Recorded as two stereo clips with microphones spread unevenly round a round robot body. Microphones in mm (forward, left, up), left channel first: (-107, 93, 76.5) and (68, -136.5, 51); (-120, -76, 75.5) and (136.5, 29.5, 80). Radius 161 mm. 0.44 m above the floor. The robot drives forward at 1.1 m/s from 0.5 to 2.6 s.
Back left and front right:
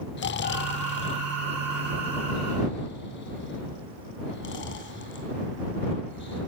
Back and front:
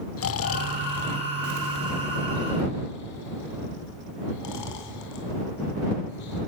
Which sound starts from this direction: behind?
Snoring, at 0.2 s.